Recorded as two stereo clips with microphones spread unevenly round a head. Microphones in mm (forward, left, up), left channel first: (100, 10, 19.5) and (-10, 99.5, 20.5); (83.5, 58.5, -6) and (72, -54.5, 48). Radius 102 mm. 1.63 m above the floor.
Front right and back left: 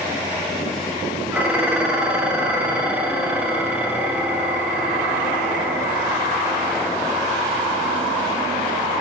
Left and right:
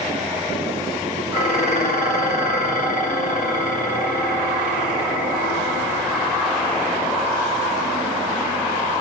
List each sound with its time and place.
1.3 s dishes clattering: 60° left, 2 m